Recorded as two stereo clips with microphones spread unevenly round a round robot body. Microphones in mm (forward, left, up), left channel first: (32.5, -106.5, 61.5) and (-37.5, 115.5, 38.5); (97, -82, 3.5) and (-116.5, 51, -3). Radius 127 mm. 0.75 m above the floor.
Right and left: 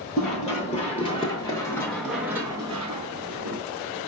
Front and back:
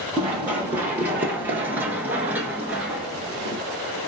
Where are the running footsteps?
130° right, 1.4 m; by 3.6 s 60° left, 0.9 m.